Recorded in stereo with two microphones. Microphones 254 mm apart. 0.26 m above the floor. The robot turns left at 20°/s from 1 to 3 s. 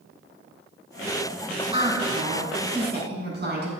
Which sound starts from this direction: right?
A woman speaking, at 1.7 s.